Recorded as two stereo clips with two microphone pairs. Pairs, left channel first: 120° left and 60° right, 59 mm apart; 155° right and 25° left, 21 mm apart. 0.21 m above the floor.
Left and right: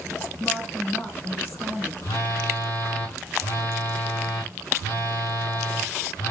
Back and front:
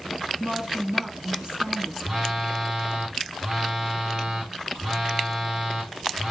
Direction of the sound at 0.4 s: 70° left.